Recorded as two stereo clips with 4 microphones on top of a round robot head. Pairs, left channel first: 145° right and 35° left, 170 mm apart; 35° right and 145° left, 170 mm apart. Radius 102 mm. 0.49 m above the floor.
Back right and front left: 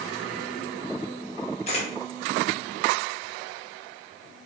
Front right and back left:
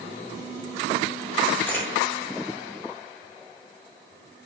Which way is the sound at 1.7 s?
110° right.